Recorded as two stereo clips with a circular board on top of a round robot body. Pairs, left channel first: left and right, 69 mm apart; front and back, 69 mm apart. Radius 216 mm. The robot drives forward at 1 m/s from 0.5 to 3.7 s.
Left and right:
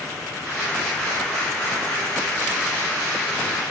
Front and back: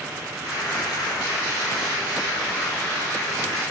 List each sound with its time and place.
Only background noise.